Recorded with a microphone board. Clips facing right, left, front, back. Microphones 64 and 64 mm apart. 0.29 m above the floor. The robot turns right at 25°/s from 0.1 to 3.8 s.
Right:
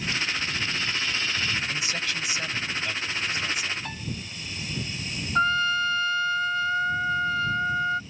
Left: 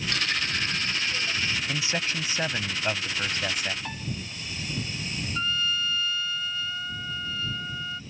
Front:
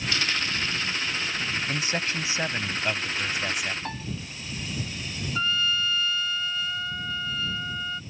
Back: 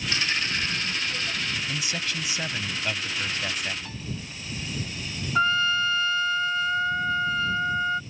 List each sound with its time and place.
0.1 s a dropped coin: 115° left; by 1.6 s 155° left
1.7 s a man speaking: 35° left; by 3.8 s 90° left
3.9 s a piano: straight ahead
5.3 s a trumpet: 130° right